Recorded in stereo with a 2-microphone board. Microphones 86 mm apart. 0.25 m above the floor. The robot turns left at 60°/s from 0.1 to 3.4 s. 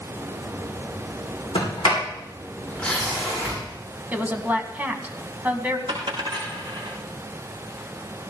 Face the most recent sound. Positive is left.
turn(degrees=-70)  # may be behind; listen again after turning